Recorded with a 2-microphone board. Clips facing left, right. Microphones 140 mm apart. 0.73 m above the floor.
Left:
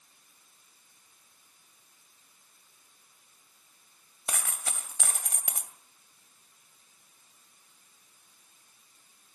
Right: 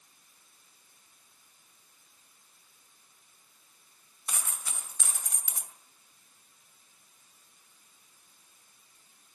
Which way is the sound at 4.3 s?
75° left (ahead or behind).